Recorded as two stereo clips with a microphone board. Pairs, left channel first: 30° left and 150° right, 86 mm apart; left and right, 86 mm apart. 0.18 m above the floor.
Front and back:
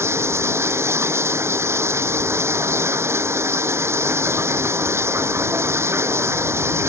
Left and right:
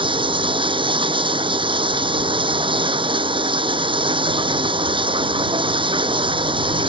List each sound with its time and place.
0.0 s running water: 95° right